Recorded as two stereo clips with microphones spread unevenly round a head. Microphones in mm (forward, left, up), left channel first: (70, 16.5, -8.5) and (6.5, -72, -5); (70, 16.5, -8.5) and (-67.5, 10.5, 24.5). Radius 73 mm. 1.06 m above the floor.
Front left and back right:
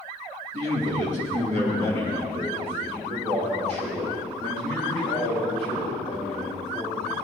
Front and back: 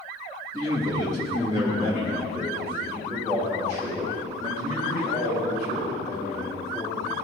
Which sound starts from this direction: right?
A man speaking, at 0.5 s.